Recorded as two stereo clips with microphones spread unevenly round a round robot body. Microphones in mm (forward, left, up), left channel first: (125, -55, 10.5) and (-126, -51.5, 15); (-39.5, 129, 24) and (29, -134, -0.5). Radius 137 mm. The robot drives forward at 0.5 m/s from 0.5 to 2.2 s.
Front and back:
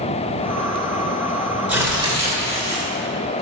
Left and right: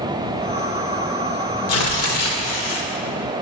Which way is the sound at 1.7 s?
95° left.